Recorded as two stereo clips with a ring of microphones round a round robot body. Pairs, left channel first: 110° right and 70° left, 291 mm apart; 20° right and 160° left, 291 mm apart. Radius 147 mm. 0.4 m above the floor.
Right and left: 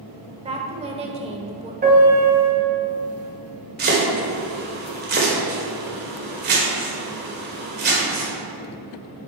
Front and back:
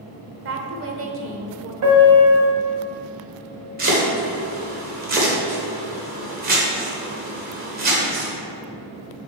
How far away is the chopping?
About 1.9 m.